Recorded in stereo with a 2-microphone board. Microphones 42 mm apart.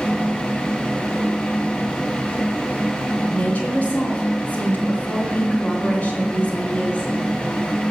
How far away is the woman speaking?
About 2.5 m.